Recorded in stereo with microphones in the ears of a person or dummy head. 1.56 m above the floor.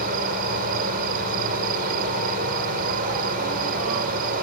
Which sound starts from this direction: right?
An insect, at 0.0 s.